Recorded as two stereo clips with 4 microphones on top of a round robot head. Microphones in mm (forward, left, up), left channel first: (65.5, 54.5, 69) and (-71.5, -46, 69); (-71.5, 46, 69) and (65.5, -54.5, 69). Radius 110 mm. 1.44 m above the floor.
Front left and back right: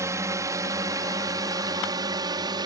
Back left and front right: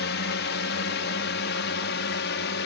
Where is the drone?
145° left; by 2.7 s 150° left.